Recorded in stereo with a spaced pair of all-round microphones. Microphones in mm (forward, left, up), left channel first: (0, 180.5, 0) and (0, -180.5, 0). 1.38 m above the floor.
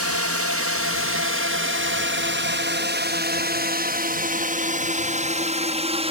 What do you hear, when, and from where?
0.0 s a drone: 45° right (ahead or behind); by 6.1 s 15° right (ahead or behind)